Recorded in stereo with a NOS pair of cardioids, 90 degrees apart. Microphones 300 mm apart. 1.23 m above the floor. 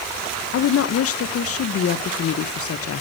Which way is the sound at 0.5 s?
45° left.